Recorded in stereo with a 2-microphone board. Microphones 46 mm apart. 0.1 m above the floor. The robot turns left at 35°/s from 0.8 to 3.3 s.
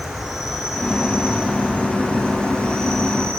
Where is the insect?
5° right, 1.8 m; by 3.4 s 95° right, 1.8 m.